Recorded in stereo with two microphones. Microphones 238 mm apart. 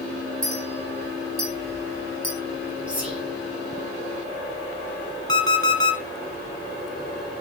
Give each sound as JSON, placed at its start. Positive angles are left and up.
{"t": 0.4, "sound": "a clink", "side_deg": -35, "distance_m": 4.0}
{"t": 2.9, "sound": "whispering", "side_deg": -5, "distance_m": 4.0}
{"t": 5.3, "sound": "an alarm clock", "side_deg": -55, "distance_m": 1.5}